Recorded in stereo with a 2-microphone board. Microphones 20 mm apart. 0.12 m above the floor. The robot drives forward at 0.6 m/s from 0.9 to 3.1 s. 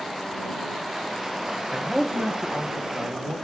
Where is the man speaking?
25° right (ahead or behind), 1.9 m; by 3.4 s 20° right (ahead or behind), 2.5 m.